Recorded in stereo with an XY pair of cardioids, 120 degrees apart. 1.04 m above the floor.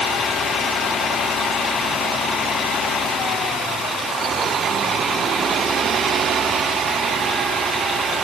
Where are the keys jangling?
No keys jangling in this recording.